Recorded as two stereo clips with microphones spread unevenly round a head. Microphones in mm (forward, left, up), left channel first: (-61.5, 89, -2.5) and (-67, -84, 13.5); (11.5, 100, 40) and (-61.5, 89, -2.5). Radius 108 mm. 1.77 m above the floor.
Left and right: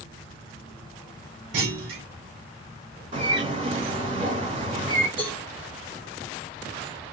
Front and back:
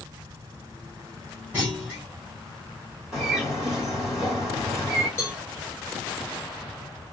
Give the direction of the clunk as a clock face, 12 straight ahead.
3 o'clock.